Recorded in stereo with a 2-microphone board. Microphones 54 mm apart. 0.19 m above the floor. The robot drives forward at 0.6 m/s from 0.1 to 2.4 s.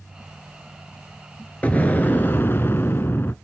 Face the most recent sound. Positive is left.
turn(degrees=40)  # may be behind; listen again after turning